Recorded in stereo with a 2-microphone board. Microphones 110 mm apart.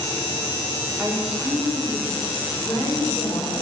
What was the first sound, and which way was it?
A woman speaking, 25° right (ahead or behind).